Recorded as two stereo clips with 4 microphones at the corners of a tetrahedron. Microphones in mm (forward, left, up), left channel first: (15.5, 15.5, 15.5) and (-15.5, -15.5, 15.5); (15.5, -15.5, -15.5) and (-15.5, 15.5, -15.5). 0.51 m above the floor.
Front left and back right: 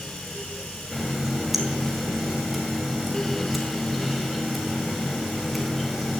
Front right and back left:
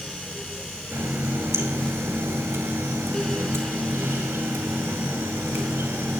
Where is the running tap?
135° left, 2 m.